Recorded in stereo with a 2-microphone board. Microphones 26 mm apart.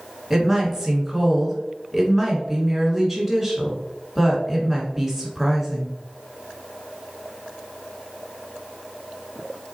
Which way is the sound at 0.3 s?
5° right (ahead or behind).